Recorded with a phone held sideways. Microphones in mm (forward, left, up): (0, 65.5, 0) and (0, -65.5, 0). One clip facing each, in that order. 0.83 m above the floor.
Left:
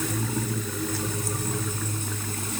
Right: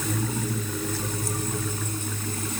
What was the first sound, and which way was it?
Only background noise.